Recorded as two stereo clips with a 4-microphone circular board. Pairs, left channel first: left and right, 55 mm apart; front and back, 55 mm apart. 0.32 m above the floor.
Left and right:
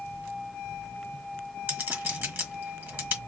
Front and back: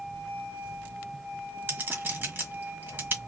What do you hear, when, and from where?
1.7 s a clink: 140° right, 1.3 m